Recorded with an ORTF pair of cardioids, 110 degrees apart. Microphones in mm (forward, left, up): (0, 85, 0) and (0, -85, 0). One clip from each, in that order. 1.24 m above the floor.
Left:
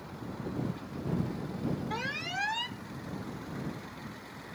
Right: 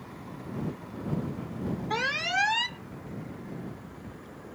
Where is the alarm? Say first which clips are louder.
Right 10 dB; 40° right.